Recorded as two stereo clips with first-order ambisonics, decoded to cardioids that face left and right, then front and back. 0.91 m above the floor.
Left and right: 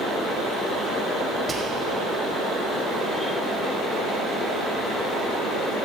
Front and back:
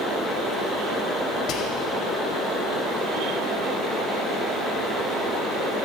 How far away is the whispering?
About 0.7 m.